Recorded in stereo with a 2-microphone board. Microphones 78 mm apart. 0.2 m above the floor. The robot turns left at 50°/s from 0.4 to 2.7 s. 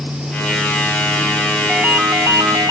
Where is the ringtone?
10° right; by 2.7 s 60° right.